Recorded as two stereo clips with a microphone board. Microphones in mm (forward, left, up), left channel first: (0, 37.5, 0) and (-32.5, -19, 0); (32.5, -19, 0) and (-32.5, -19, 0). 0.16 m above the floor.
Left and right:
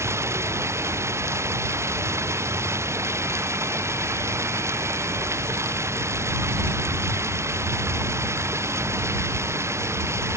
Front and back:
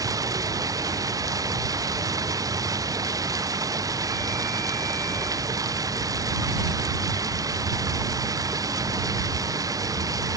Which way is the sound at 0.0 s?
160° right.